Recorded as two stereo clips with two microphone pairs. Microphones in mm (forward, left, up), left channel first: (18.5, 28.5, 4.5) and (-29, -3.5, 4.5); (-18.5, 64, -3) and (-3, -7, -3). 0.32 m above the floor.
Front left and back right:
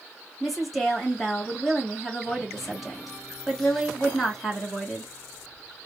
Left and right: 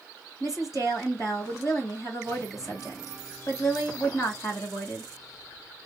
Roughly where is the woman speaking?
Behind left.